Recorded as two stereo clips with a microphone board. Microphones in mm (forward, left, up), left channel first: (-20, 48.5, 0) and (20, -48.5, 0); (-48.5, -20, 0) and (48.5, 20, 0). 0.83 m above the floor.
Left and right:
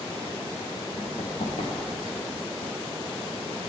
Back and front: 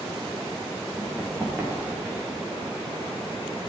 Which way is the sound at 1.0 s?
100° left.